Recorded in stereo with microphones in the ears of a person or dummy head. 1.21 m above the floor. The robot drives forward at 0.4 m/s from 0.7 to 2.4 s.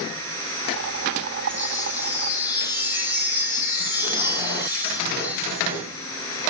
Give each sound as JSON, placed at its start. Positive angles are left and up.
{"t": 1.5, "sound": "a chime", "side_deg": -15, "distance_m": 4.0}